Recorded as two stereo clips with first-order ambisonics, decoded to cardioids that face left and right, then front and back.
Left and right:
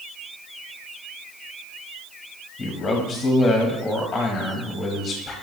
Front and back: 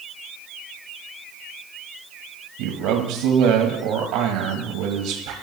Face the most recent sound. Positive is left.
turn(degrees=165)